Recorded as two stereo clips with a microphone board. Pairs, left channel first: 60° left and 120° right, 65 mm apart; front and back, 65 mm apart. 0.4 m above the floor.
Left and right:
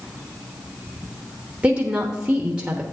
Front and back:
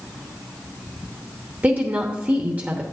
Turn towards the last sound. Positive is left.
turn(degrees=-165)